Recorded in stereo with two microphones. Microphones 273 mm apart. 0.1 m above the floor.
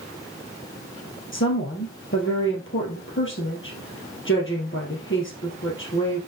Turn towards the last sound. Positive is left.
turn(degrees=45)  # may be behind; listen again after turning